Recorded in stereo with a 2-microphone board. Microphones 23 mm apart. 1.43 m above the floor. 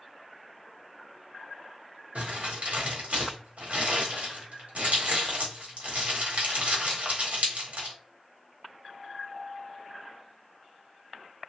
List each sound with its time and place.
2.1 s crumpling: 80° right, 1.2 m